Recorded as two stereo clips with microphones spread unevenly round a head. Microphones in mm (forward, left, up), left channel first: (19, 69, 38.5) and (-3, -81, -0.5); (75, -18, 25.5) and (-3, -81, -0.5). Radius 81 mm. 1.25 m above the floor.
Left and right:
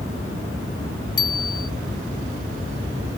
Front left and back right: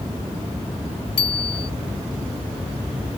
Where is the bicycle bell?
25° left.